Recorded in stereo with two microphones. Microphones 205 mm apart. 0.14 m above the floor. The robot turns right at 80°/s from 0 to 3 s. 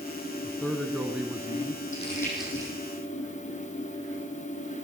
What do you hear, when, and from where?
0.4 s a man speaking: 15° left (ahead or behind), 1.6 m; by 1.8 s 20° right (ahead or behind), 1.6 m
1.9 s crumpling: 35° left (ahead or behind), 6 m; by 2.7 s 25° right (ahead or behind), 6 m